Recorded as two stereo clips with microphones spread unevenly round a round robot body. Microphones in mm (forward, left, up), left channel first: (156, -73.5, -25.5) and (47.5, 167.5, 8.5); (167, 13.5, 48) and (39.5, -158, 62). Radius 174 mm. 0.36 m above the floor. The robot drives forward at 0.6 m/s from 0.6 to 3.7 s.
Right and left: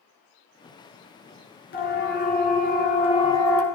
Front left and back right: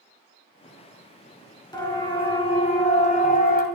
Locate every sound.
1.7 s a siren: 15° right, 5.5 m; by 3.6 s 15° left, 3 m